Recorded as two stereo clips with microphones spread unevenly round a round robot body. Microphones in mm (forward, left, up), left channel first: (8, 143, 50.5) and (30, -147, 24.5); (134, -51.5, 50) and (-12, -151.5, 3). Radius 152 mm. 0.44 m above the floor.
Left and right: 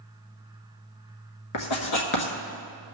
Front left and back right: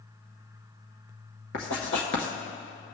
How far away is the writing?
About 1.6 m.